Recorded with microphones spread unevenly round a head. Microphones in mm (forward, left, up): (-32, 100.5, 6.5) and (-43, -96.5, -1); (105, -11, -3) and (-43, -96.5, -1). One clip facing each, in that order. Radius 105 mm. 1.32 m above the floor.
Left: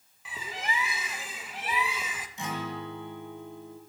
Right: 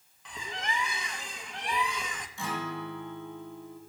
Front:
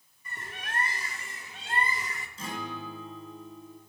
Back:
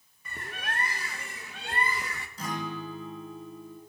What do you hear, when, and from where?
0.2 s a bird: 170° left, 0.9 m
2.4 s a guitar: 155° left, 2.5 m